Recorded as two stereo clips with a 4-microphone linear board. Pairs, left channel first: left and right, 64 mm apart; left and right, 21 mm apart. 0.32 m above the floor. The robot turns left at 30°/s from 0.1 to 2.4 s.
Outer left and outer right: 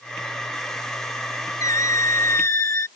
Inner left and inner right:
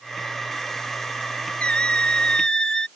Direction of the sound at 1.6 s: 65° left (ahead or behind).